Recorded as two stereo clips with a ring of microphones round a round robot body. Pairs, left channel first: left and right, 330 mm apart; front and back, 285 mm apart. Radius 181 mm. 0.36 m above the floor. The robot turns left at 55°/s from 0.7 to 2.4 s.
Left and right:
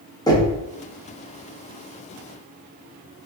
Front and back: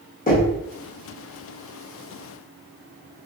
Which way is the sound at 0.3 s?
20° left.